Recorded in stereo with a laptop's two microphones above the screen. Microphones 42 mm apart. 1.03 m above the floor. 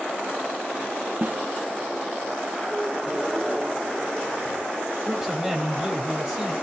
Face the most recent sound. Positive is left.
turn(degrees=-10)  # may be behind; listen again after turning